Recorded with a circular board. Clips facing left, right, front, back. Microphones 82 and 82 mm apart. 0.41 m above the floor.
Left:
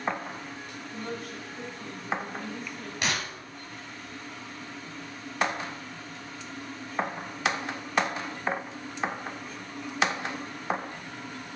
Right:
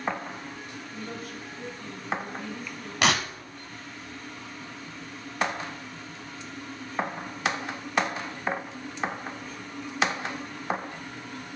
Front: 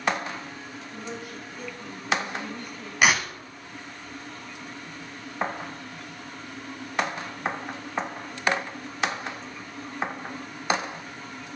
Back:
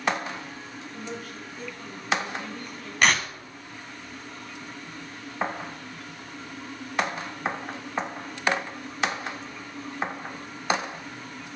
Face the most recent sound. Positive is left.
turn(degrees=-85)